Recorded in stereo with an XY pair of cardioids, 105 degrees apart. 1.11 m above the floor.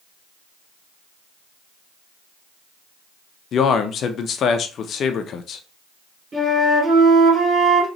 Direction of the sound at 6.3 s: 30° right.